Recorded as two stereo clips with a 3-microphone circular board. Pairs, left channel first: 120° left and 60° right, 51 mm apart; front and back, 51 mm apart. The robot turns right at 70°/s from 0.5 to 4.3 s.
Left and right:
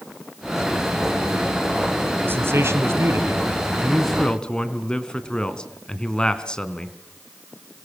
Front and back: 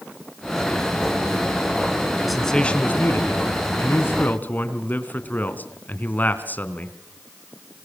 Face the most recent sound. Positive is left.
turn(degrees=50)